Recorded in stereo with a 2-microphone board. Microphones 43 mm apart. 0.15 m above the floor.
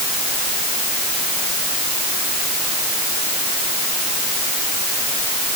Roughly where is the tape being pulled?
No tape being pulled in this recording.